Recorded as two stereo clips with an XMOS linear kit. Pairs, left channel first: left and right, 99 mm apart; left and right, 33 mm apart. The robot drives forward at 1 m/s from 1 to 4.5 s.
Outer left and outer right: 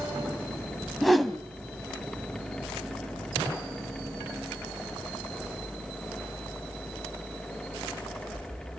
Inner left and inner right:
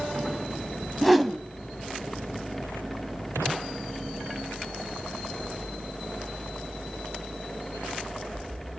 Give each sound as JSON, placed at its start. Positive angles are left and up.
{"t": 1.0, "sound": "a whoosh", "side_deg": 0, "distance_m": 1.3}